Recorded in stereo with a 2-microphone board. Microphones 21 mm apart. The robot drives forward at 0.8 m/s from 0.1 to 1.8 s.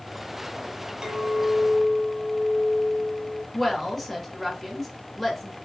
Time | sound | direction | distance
1.0 | a clink | 35° right (ahead or behind) | 1.2 m
3.5 | a woman speaking | 10° left (ahead or behind) | 1.6 m